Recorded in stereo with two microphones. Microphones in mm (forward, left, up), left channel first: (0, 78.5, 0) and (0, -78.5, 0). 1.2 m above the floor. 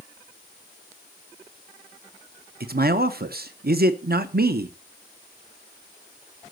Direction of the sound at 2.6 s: 80° right.